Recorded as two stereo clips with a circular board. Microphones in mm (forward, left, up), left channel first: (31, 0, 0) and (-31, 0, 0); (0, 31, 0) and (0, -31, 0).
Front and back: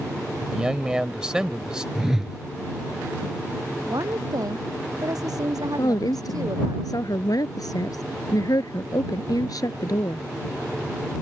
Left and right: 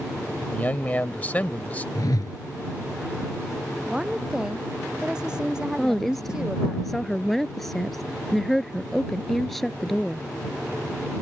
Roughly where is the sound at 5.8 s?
Ahead.